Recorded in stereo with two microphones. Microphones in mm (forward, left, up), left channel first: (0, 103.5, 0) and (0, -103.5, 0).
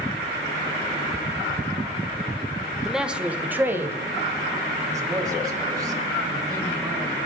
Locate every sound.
2.9 s a man speaking: centre (ahead or behind), 1.3 m; by 7.2 s 20° right (ahead or behind), 4.5 m